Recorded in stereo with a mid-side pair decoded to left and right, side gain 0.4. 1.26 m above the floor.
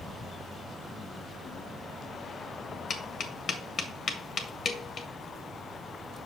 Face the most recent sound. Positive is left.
turn(degrees=55)